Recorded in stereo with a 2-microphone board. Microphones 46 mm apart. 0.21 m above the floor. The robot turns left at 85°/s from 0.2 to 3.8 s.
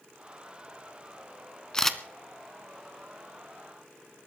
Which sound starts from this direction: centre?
A camera shutter, at 1.7 s.